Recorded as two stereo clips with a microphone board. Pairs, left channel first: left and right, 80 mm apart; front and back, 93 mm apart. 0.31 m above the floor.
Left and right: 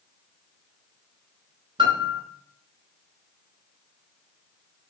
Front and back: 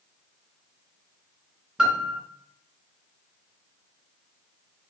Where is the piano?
100° right, 0.8 m.